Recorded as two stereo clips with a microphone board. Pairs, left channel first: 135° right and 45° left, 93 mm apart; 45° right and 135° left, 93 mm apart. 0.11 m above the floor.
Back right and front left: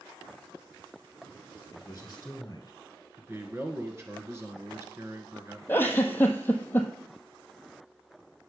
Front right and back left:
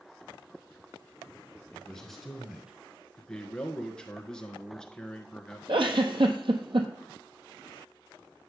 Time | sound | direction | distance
1.7 | a man speaking | 115° right | 1.3 m
3.2 | a man speaking | 30° left | 1.3 m
5.7 | a giggle | 155° left | 1.1 m